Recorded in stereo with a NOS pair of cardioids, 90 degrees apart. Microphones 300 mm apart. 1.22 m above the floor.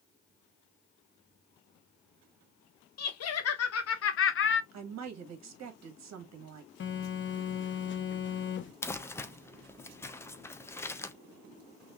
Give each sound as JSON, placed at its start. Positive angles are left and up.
{"t": 3.0, "sound": "laughter", "azimuth_deg": 60, "distance_m": 1.8}
{"t": 4.7, "sound": "a woman speaking", "azimuth_deg": -60, "distance_m": 1.9}
{"t": 6.8, "sound": "a phone buzzing", "azimuth_deg": 40, "distance_m": 1.1}
{"t": 8.8, "sound": "crumpling", "azimuth_deg": 10, "distance_m": 0.7}